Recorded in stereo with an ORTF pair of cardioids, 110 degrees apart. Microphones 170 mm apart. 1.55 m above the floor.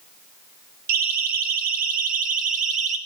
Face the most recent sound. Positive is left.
turn(degrees=-45)